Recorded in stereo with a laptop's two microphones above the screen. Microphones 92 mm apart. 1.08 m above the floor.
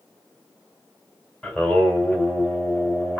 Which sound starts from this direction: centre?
Singing, at 1.4 s.